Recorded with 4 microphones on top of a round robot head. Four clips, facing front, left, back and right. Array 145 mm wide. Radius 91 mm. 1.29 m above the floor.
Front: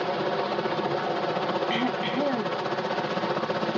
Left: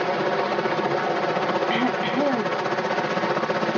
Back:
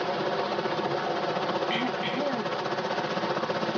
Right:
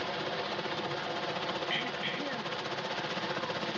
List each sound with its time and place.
0.0 s a helicopter: 85° left
1.7 s throat clearing: 80° left